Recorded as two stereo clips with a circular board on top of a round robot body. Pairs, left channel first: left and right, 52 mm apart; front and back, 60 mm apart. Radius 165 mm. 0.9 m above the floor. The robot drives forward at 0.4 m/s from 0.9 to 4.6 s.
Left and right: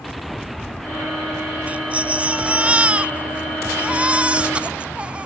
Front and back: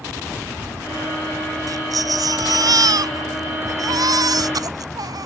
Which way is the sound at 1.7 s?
155° right.